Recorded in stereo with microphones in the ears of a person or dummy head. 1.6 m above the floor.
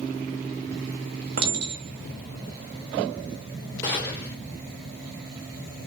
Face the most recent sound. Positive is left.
turn(degrees=15)  # may be behind; listen again after turning